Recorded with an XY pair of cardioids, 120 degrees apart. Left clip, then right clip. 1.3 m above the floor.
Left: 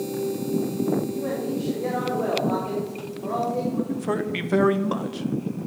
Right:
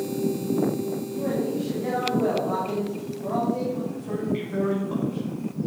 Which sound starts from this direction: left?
A man speaking, at 3.9 s.